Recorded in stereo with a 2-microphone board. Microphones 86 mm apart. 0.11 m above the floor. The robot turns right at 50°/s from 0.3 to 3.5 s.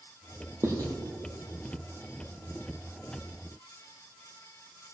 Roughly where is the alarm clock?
I don't hear an alarm clock.